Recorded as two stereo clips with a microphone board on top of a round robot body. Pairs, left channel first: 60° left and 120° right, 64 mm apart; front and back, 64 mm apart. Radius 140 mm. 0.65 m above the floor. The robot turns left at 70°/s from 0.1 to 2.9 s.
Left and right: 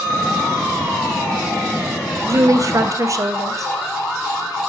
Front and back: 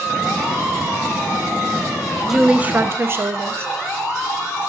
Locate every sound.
2.3 s a woman speaking: 95° right, 0.7 m; by 3.7 s 140° right, 0.7 m